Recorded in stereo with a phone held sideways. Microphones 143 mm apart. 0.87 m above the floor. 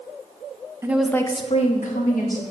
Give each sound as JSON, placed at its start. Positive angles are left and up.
{"t": 0.8, "sound": "a woman speaking", "side_deg": -20, "distance_m": 0.8}